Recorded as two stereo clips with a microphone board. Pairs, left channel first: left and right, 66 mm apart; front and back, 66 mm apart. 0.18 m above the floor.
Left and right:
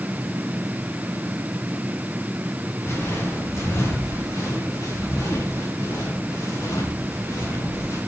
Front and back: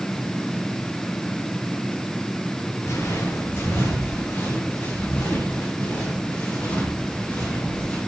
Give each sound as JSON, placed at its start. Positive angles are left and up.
{"t": 2.8, "sound": "footsteps", "azimuth_deg": 40, "distance_m": 3.5}